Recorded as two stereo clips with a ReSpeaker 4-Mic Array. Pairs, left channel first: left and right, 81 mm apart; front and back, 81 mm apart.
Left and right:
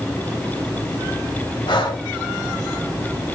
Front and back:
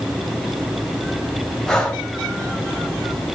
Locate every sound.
1.7 s breathing: 85° left, 1.0 m